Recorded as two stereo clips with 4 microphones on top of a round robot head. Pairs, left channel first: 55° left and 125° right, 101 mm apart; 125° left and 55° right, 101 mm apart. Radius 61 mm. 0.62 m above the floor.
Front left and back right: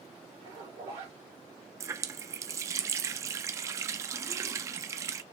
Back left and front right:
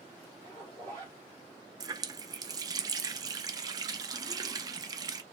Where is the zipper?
100° right, 2.5 m.